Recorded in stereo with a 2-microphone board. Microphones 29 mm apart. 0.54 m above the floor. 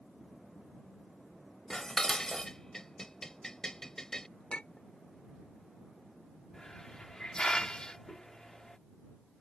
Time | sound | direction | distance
1.7 | dishes clattering | 20° left (ahead or behind) | ?
4.5 | a clink | 40° left (ahead or behind) | ?
6.5 | a hiss | 30° left (ahead or behind) | ?